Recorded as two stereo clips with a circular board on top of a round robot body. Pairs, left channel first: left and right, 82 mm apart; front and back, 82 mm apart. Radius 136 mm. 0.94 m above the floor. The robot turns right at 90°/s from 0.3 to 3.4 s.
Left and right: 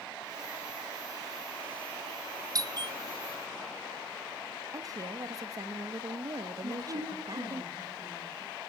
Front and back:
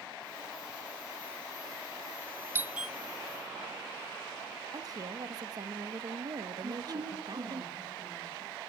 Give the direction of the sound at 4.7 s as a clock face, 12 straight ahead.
5 o'clock.